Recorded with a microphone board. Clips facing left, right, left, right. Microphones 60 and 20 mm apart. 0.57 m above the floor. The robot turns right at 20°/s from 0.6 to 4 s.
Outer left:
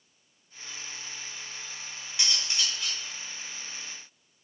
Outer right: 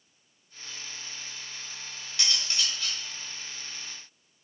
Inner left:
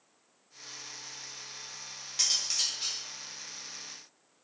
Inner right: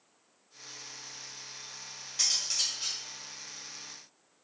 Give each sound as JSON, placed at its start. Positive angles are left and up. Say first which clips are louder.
{"t": 2.2, "sound": "cutlery clinking", "louder": "even, even", "side_deg": 20, "distance_m": 0.7}